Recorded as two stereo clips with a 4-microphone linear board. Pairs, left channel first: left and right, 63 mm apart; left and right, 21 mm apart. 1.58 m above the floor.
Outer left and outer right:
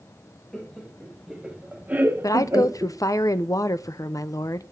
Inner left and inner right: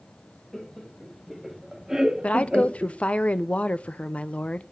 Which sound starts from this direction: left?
A woman speaking, at 2.2 s.